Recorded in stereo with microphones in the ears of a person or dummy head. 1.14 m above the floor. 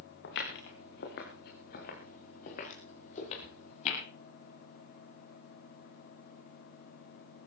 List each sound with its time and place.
0.2 s footsteps: 80° left, 7 m; by 4.0 s 50° left (ahead or behind), 9.5 m